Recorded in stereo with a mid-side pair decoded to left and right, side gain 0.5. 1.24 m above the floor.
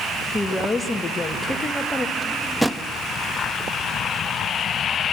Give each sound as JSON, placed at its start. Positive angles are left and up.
{"t": 0.3, "sound": "a woman speaking", "azimuth_deg": 25, "distance_m": 2.0}
{"t": 2.2, "sound": "a drawer", "azimuth_deg": -5, "distance_m": 1.0}